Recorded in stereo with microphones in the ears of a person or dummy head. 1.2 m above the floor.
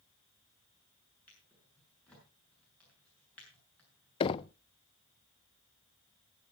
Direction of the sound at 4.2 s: 25° left (ahead or behind).